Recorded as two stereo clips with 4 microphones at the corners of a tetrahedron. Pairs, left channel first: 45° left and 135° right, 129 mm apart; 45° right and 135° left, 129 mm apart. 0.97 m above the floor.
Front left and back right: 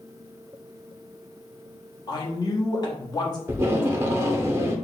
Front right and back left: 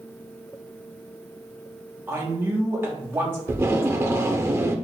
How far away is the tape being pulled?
About 0.6 m.